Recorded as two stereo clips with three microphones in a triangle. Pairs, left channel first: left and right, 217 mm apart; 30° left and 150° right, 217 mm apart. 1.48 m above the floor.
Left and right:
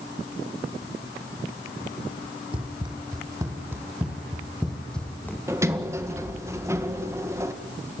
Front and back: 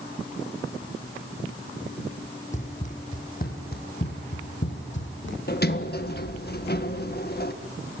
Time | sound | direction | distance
2.5 | running footsteps | 25° right | 4 m
5.5 | a sliding door | 15° right | 1.7 m